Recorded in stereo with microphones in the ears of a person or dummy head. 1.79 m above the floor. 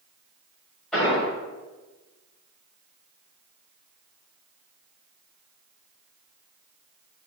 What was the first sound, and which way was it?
An explosion, 5° left (ahead or behind).